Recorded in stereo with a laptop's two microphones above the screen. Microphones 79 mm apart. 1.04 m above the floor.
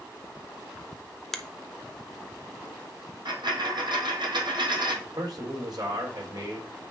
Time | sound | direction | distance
1.3 | a finger snap | 5° left (ahead or behind) | 0.8 m
3.2 | a dropped coin | 65° right (ahead or behind) | 3 m
5.0 | a man speaking | 55° right (ahead or behind) | 4 m